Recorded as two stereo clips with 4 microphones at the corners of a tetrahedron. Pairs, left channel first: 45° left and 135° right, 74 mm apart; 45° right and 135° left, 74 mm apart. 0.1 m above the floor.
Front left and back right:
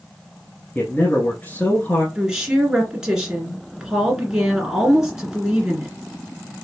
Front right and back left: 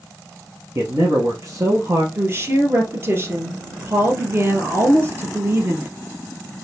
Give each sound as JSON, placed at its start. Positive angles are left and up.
{"t": 0.8, "sound": "a man speaking", "azimuth_deg": 105, "distance_m": 1.5}
{"t": 2.1, "sound": "a woman speaking", "azimuth_deg": 150, "distance_m": 2.0}